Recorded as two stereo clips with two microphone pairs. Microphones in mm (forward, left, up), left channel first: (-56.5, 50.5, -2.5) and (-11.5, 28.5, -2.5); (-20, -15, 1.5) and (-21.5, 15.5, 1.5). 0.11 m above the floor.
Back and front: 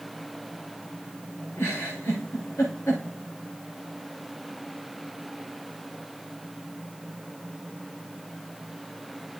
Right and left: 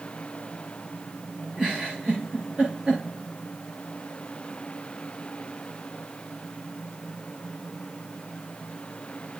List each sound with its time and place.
1.6 s a giggle: 170° left, 5.5 m